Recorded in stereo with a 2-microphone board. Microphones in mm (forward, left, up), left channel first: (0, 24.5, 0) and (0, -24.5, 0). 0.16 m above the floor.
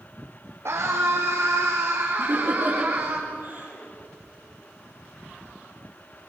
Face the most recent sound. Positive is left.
turn(degrees=-45)  # may be behind; listen again after turning